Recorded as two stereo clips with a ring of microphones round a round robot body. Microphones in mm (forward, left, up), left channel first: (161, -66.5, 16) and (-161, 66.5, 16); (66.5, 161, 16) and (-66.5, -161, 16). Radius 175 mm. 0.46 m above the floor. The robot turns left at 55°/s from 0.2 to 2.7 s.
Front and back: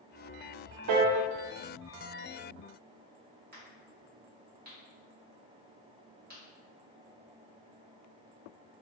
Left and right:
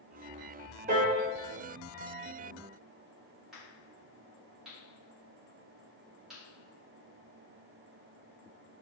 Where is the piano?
Straight behind, 0.5 m; by 1.2 s 165° left, 0.5 m.